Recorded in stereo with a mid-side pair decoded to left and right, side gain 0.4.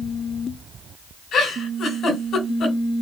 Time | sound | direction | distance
1.3 | a giggle | 70° left | 2 m